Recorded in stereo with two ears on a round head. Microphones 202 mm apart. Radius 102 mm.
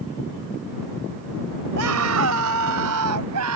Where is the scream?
70° right (ahead or behind); by 3.6 s 85° right.